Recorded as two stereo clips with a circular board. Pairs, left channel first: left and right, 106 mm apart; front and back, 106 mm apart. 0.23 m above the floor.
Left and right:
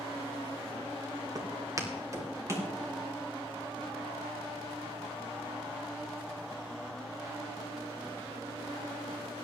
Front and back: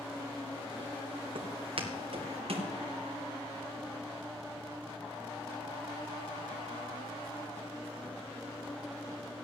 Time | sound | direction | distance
1.4 | footsteps | 145° right | 1.9 m